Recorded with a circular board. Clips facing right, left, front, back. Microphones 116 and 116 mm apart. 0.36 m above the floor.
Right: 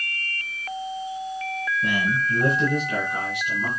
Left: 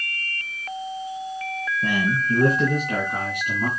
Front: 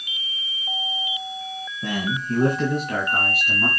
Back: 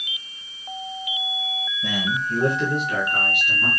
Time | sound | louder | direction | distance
1.8 | a man speaking | left 3 dB, front 1 dB | 40° left | 3 m